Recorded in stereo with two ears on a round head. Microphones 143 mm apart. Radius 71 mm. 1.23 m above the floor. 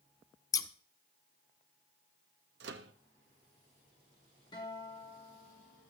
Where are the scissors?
20° left (ahead or behind), 0.7 m.